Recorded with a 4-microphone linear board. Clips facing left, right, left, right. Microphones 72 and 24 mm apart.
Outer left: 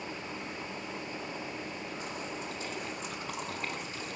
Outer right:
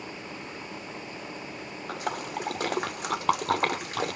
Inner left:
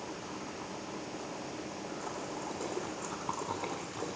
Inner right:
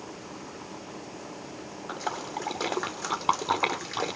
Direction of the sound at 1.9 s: 75° right (ahead or behind).